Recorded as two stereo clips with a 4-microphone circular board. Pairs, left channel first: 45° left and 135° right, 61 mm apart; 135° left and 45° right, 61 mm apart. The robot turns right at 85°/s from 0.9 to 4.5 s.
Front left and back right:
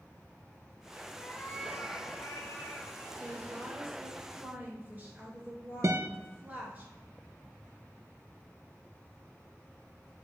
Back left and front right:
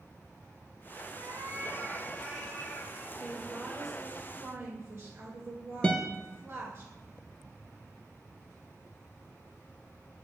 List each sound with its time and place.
1.1 s a cat meowing: 45° right, 0.9 m; by 3.1 s 120° left, 0.9 m
3.2 s a woman speaking: 170° left, 1.9 m; by 6.8 s 80° right, 1.9 m
5.8 s a guitar: 155° right, 0.6 m